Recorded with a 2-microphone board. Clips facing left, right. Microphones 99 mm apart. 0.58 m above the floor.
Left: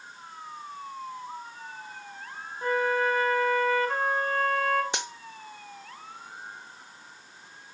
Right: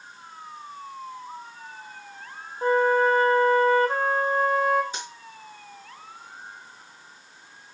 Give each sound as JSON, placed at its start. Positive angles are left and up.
{"t": 2.6, "sound": "a flute", "side_deg": -30, "distance_m": 1.3}
{"t": 4.9, "sound": "a dropped coin", "side_deg": 75, "distance_m": 0.7}